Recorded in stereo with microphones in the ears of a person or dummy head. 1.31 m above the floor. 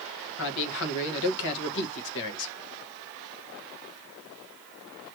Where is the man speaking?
65° left (ahead or behind), 1.3 m.